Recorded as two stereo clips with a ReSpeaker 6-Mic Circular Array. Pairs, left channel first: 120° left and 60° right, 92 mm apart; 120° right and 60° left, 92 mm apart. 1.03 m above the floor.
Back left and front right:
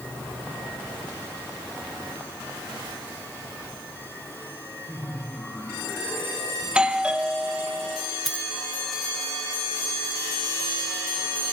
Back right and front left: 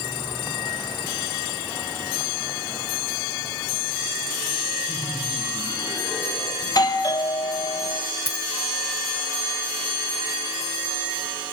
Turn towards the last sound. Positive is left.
turn(degrees=25)